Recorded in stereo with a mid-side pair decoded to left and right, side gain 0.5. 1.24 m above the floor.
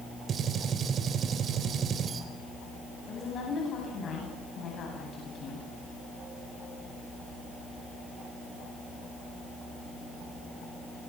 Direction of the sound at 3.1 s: 55° left.